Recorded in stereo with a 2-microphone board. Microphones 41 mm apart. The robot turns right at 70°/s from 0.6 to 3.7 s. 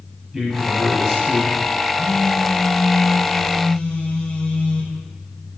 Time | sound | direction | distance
0.3 | a man speaking | 10° right (ahead or behind) | 1.6 m
1.9 | a phone buzzing | 20° left | 1.4 m